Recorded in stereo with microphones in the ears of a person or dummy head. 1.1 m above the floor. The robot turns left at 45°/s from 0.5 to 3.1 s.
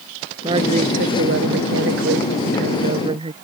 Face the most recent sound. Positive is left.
turn(degrees=-150)